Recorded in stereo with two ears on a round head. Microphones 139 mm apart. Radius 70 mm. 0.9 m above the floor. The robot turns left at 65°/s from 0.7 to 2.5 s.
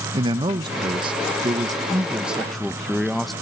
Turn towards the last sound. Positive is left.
turn(degrees=180)